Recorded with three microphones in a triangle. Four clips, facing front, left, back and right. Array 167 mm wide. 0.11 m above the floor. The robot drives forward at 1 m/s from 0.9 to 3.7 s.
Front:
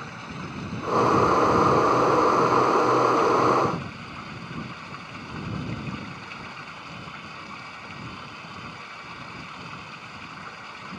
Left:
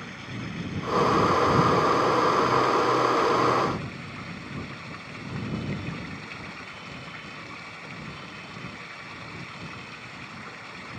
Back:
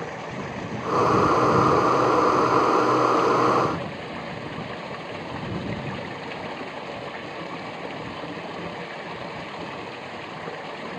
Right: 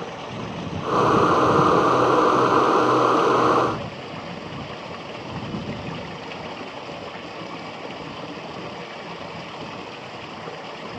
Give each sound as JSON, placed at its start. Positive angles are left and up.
{"t": 0.0, "sound": "running water", "azimuth_deg": -135}